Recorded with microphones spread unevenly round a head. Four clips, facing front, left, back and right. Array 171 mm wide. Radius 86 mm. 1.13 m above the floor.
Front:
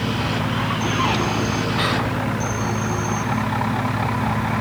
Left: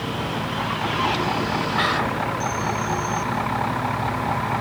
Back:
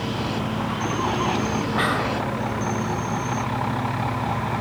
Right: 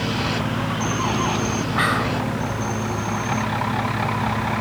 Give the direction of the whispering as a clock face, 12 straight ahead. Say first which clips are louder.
Right 2 dB, front 1 dB; 5 o'clock.